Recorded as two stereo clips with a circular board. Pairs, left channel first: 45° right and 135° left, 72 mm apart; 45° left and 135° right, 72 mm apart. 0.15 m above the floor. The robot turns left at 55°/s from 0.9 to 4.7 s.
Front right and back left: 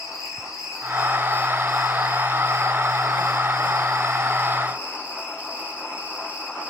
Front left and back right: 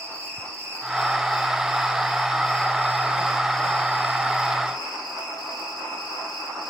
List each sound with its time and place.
0.0 s an insect: 85° right, 5 m; by 6.7 s 65° left, 5 m